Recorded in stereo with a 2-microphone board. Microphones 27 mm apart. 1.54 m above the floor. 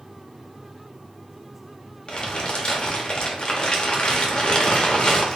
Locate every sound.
2.1 s crumpling: 35° left (ahead or behind), 1.0 m